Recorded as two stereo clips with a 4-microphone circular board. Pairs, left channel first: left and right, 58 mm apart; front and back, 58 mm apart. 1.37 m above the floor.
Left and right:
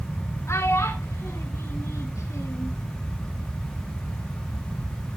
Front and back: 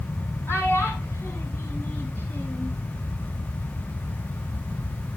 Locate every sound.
0.5 s a child speaking: 50° left, 8 m; by 2.7 s 60° left, 7 m